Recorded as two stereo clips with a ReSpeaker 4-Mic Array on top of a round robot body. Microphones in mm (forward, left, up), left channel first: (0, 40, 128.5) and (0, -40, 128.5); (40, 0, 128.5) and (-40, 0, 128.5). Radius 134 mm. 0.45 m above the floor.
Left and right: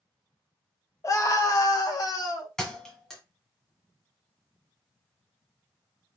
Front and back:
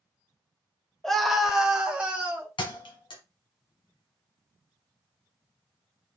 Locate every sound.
1.0 s a scream: 80° left, 1.5 m; by 2.5 s 115° left, 2.5 m
2.6 s a thud: 5° left, 1.4 m